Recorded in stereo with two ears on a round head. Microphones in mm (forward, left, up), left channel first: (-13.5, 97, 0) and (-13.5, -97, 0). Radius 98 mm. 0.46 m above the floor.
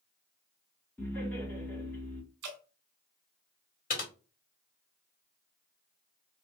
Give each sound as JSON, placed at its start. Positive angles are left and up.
{"t": 1.0, "sound": "laughter", "side_deg": 10, "distance_m": 1.7}
{"t": 2.4, "sound": "dripping", "side_deg": -50, "distance_m": 1.3}
{"t": 3.9, "sound": "typing on a keyboard", "side_deg": 40, "distance_m": 1.4}